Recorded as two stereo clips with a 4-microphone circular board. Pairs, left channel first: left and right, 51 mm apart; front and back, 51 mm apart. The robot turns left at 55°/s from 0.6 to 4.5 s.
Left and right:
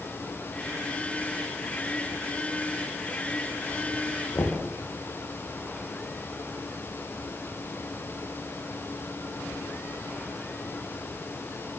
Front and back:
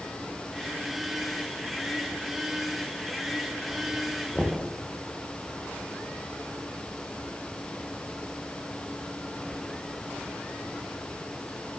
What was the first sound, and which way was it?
Knocking, 90° left.